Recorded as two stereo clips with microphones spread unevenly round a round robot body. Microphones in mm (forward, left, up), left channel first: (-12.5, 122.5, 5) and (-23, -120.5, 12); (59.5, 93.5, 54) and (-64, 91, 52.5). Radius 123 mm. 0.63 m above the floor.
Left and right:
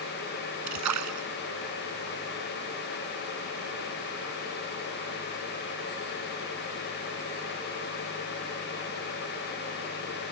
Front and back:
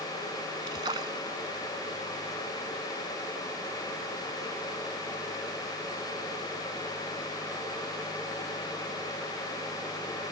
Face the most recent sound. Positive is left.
turn(degrees=-110)